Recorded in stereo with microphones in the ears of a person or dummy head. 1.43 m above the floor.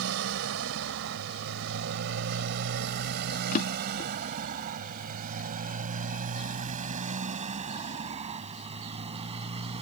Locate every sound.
0.0 s a motorcycle: 80° right; by 9.8 s 35° right (ahead or behind)
3.5 s a drawer: 45° left (ahead or behind)